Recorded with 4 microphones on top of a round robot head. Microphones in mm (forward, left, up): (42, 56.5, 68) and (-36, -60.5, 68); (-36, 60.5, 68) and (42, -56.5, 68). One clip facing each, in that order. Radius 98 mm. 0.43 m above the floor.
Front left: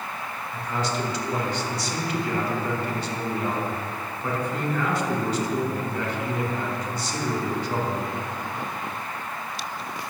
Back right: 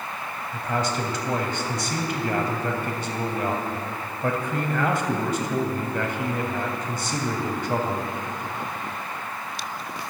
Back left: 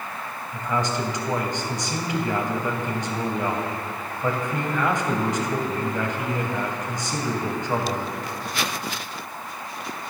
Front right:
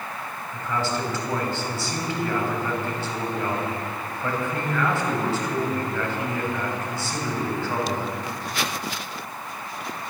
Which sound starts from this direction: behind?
A man speaking, at 0.5 s.